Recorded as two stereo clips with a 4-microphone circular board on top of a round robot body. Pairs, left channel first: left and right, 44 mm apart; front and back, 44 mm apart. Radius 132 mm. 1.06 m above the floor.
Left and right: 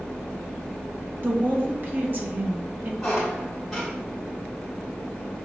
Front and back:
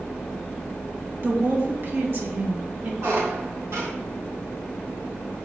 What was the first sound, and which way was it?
A woman speaking, 135° right.